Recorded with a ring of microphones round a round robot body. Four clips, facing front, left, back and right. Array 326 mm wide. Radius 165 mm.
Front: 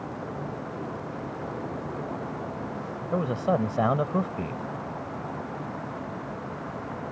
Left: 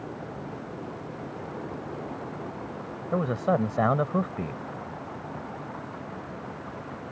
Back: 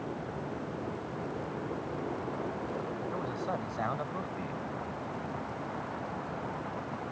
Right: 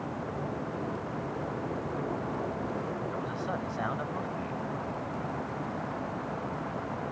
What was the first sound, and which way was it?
A man speaking, 45° left.